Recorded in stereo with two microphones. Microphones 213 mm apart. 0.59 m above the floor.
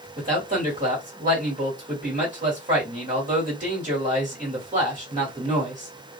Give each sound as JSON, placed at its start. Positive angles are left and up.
{"t": 0.2, "sound": "a man speaking", "side_deg": -40, "distance_m": 1.8}